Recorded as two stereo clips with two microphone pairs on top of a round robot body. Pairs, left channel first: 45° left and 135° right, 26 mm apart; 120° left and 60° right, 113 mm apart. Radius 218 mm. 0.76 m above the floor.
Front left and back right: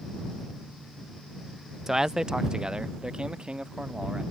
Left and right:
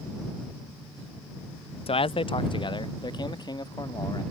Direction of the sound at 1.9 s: 155° left.